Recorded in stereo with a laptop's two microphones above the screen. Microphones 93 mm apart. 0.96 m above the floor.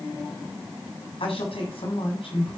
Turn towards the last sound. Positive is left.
turn(degrees=85)